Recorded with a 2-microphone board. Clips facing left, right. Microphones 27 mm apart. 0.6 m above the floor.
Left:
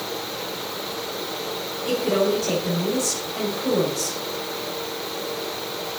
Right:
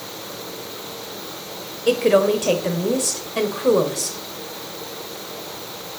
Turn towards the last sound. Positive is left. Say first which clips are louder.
# right 5 dB
turn(degrees=-75)  # may be behind; listen again after turning